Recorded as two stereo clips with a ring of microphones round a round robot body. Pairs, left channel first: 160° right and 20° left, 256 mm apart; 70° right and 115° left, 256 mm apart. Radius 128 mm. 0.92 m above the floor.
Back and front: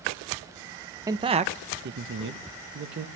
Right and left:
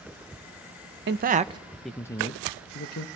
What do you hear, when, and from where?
1.1 s a man speaking: 95° left, 0.6 m; by 3.1 s 20° right, 1.0 m